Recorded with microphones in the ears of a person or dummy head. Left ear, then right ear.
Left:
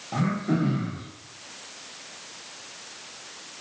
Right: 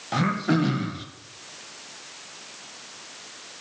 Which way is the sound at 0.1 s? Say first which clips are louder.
Right 4 dB; 55° right (ahead or behind).